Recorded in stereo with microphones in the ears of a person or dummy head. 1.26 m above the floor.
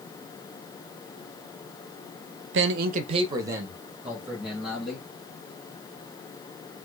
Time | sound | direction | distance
2.5 | a man speaking | 60° right (ahead or behind) | 0.6 m